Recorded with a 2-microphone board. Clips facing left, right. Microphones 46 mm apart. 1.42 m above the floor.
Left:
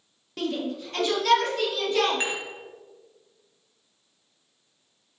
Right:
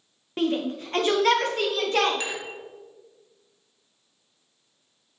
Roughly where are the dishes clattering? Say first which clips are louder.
Left 2 dB; left.